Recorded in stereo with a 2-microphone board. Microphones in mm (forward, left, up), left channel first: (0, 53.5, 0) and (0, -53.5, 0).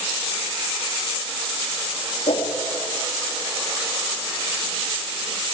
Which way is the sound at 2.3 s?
75° left (ahead or behind).